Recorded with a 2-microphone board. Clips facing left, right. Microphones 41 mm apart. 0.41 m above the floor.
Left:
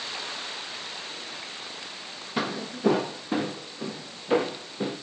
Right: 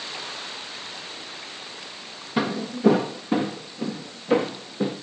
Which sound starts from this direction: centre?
Footsteps, at 2.4 s.